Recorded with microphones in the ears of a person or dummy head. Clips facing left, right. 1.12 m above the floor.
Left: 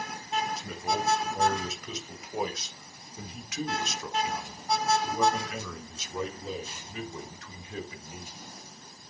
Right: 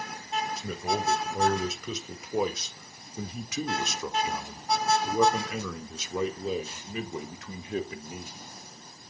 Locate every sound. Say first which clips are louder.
0.6 s a man speaking: right 1 dB; 60° right (ahead or behind), 4.5 m; by 8.4 s 55° right (ahead or behind), 4 m